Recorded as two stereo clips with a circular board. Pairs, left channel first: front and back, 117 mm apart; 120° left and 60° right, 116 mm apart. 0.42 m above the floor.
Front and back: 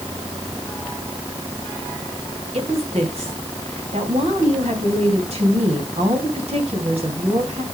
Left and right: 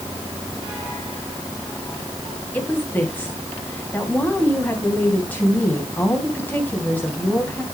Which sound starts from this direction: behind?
A woman speaking, at 2.5 s.